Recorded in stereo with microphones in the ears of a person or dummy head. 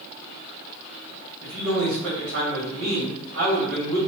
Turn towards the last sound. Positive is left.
turn(degrees=-80)